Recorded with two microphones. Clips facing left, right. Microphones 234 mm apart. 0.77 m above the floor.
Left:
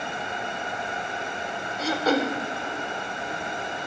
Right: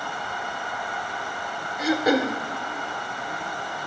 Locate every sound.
1.8 s throat clearing: 15° right (ahead or behind), 0.8 m